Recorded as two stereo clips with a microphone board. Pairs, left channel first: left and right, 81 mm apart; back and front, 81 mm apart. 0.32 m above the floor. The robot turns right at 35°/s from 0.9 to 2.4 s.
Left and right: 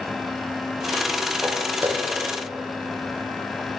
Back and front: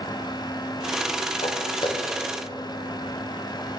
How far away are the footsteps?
About 4 m.